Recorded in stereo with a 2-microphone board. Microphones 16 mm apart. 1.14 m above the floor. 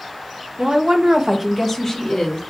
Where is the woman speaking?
85° right, 1.1 m; by 2.4 s 35° left (ahead or behind), 1.5 m.